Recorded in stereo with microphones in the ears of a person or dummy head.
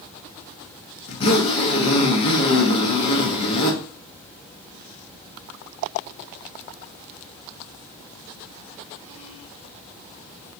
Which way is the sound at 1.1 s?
25° left (ahead or behind).